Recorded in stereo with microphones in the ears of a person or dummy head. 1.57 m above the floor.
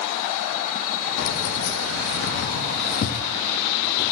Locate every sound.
1.2 s keys jangling: 60° left (ahead or behind), 1.8 m; by 4.1 s 25° left (ahead or behind), 2 m